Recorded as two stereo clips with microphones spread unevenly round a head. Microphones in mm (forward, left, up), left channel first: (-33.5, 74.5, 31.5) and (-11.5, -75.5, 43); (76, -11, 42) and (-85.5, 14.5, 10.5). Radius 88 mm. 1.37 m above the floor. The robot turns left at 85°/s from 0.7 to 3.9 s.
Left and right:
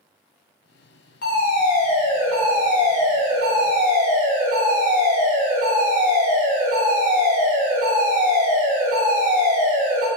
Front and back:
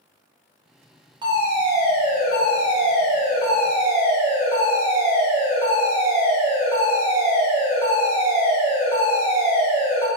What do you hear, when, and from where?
1.2 s a fire alarm: 115° left, 3 m; by 10.1 s 115° right, 3 m